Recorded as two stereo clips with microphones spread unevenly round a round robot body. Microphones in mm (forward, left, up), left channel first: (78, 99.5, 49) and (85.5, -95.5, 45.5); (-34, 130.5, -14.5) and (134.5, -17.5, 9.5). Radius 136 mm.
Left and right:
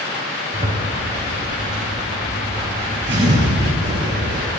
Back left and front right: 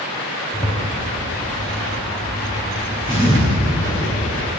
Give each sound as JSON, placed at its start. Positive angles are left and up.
{"t": 0.5, "sound": "a zipper", "azimuth_deg": -150, "distance_m": 3.5}